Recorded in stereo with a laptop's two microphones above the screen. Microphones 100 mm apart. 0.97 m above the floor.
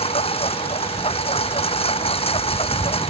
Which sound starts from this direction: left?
A lawn mower, at 0.0 s.